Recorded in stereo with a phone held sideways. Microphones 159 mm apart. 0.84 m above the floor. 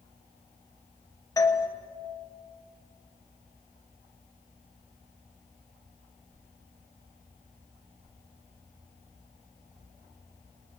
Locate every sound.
1.4 s a doorbell: 20° left (ahead or behind), 1.4 m